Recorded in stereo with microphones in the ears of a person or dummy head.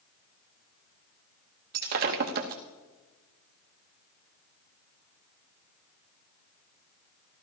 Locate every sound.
1.7 s breaking glass: 50° right (ahead or behind), 0.9 m